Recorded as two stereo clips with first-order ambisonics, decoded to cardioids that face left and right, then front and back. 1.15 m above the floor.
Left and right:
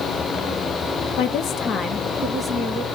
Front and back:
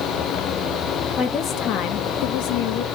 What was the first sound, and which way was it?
A woman speaking, 65° left.